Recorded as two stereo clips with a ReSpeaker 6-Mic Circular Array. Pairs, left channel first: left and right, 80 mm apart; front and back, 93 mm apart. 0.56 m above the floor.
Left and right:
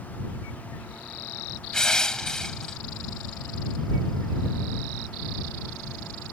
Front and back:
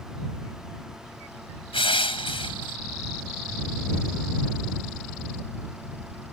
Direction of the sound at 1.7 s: 10° left.